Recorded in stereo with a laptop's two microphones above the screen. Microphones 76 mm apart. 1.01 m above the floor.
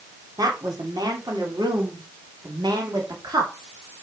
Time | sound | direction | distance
0.4 | a woman speaking | 65° right (ahead or behind) | 3.5 m